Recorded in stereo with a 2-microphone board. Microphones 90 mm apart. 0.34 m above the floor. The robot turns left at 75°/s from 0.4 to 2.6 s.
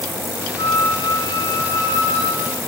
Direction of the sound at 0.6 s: 70° left.